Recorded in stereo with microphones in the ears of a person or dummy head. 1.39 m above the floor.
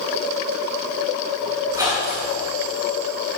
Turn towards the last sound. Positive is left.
turn(degrees=-20)  # may be behind; listen again after turning